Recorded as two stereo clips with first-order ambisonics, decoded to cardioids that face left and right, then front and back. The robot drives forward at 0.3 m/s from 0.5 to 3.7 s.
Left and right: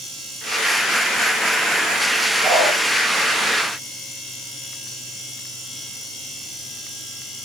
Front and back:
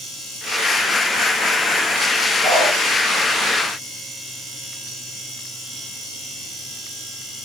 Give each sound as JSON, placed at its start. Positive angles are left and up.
{"t": 2.4, "sound": "a dog barking", "azimuth_deg": 165, "distance_m": 6.0}